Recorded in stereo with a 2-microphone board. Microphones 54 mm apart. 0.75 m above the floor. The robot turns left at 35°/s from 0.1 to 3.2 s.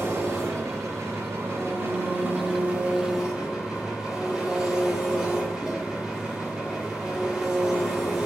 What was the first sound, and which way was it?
An engine running, 65° right.